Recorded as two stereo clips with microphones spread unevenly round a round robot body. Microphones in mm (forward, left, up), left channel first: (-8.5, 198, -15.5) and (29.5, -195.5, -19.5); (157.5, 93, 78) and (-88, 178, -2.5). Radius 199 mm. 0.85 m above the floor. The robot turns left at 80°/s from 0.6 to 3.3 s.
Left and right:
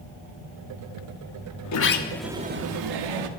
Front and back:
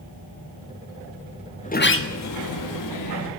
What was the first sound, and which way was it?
A sliding door, 55° left.